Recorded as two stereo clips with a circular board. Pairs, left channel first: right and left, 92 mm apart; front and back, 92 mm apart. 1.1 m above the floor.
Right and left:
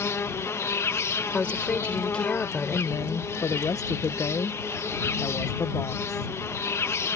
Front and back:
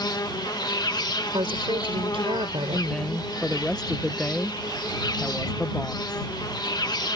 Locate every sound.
0.0 s an insect: 35° right
1.3 s a woman speaking: 165° right
2.7 s a woman speaking: 75° right